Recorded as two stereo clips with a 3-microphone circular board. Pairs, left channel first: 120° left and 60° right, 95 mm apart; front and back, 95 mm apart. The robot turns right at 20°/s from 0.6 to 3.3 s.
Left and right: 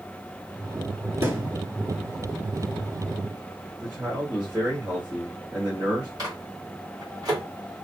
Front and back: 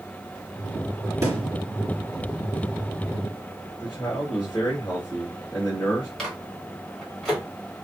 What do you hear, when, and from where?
1.2 s a thud: 120° right, 1.7 m; by 1.5 s 115° right, 1.7 m
3.8 s a man speaking: 35° right, 1.2 m
6.2 s a microwave: 85° right, 1.4 m